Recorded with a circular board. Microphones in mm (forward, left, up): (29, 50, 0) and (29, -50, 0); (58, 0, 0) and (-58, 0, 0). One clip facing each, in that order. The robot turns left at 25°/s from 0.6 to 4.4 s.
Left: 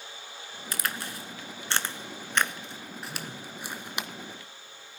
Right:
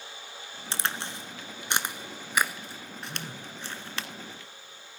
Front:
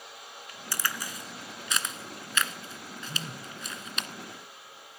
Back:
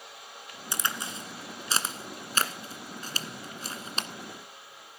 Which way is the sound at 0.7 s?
125° right.